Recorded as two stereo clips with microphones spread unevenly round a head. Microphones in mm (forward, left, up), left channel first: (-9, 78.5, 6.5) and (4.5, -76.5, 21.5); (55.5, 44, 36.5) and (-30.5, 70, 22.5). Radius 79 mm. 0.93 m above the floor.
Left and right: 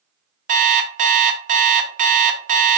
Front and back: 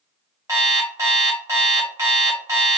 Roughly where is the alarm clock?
Behind right.